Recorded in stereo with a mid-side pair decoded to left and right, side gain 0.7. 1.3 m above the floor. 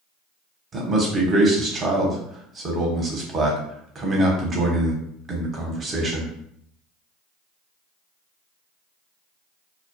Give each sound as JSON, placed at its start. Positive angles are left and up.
{"t": 0.7, "sound": "a man speaking", "azimuth_deg": -35, "distance_m": 0.9}